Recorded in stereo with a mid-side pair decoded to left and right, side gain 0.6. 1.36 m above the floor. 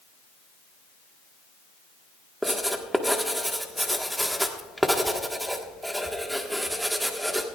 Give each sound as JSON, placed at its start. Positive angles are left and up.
{"t": 2.4, "sound": "writing", "azimuth_deg": -5, "distance_m": 1.4}